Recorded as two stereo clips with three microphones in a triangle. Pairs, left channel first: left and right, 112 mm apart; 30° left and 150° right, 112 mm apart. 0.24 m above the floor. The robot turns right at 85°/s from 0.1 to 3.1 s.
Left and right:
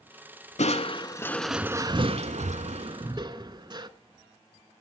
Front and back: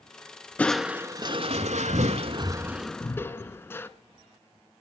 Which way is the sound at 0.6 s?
105° left.